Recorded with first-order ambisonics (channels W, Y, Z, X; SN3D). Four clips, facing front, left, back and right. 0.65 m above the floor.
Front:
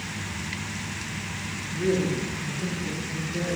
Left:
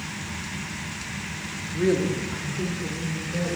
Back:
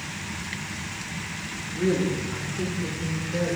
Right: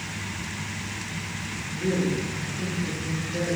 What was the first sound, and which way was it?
A woman speaking, 100° left.